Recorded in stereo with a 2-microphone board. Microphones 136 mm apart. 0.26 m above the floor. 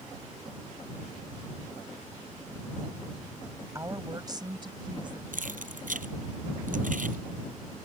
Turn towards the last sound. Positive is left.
turn(degrees=-80)